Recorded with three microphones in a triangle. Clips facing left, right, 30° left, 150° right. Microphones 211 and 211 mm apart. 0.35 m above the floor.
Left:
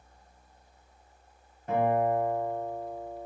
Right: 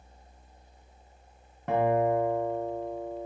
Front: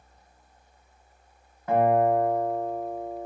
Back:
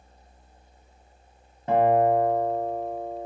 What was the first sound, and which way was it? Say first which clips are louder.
A guitar: right 1 dB, back 1 dB; 85° right.